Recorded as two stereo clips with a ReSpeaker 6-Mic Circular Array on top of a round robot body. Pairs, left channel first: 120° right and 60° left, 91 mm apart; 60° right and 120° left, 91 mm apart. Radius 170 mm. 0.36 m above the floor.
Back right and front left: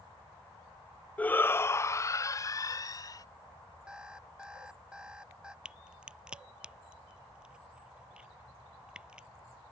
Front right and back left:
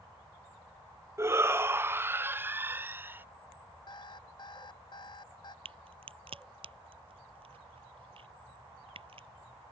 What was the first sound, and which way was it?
A shout, 170° left.